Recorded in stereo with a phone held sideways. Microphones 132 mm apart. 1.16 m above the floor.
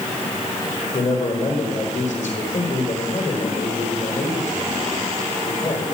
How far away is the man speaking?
About 3.5 m.